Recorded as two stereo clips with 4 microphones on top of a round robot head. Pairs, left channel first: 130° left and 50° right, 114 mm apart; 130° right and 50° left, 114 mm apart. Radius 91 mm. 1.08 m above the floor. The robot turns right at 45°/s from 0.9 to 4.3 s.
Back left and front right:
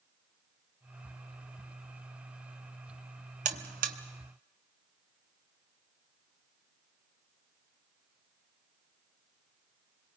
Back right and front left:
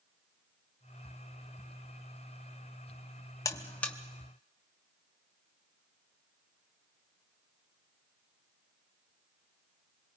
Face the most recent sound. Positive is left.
turn(degrees=-30)